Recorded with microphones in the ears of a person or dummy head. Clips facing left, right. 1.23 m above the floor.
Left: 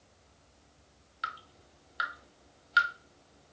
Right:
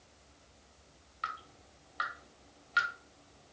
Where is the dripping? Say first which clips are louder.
Left 1 dB; 10° left (ahead or behind), 1.2 m.